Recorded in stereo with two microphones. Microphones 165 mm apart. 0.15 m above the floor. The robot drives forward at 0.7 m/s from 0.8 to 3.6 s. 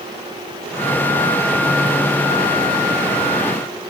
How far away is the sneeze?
I don't hear a sneeze.